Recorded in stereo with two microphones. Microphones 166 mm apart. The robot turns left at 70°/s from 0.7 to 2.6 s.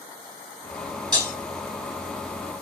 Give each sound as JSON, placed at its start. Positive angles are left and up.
{"t": 1.1, "sound": "breaking glass", "side_deg": -25, "distance_m": 1.7}